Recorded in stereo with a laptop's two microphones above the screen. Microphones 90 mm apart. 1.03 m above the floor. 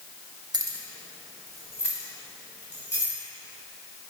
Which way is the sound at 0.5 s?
50° right (ahead or behind).